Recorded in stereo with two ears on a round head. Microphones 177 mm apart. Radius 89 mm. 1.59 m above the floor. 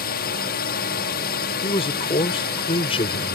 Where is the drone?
50° left (ahead or behind).